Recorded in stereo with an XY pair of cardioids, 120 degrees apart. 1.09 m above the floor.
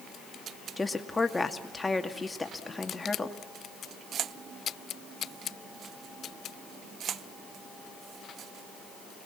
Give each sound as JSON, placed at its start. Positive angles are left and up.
{"t": 0.8, "sound": "a woman speaking", "azimuth_deg": 15, "distance_m": 2.0}